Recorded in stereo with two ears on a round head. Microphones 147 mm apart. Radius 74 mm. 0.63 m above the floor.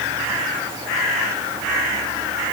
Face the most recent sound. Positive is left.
No sound to turn to.